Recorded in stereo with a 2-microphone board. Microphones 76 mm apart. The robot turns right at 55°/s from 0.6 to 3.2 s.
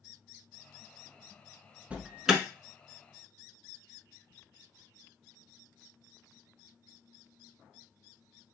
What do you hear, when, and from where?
1.9 s an alarm: 20° right (ahead or behind), 1.1 m; by 2.4 s centre (ahead or behind), 1.1 m